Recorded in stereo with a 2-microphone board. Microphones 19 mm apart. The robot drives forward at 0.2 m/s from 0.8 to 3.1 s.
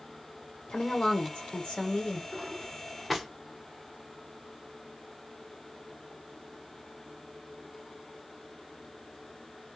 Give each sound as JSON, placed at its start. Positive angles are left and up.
{"t": 0.7, "sound": "a woman speaking", "side_deg": 65, "distance_m": 1.1}
{"t": 2.3, "sound": "a drawer", "side_deg": 5, "distance_m": 0.8}